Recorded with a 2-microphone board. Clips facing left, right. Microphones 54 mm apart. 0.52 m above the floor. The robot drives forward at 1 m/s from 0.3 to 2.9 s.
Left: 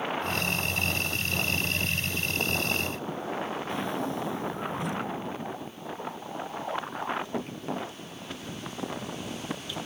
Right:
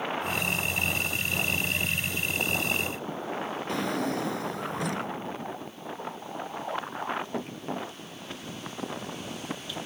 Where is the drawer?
75° right (ahead or behind).